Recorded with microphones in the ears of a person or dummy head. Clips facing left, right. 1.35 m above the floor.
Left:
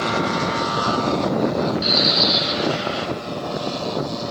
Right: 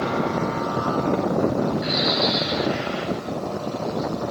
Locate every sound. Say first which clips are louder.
1.8 s a bird: left 1 dB; 60° left (ahead or behind), 5 m